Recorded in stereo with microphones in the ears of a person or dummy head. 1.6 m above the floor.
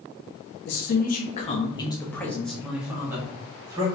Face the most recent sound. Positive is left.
turn(degrees=-25)  # may be behind; listen again after turning